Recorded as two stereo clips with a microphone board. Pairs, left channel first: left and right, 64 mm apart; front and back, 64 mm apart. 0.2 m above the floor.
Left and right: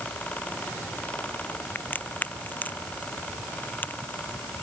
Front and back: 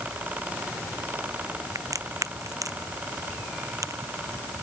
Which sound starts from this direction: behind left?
A crack, at 1.8 s.